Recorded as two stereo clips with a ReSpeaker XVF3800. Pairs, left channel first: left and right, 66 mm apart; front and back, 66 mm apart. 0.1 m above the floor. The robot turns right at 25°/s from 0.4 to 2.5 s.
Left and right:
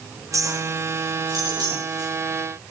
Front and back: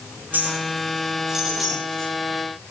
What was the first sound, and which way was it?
A clink, 120° right.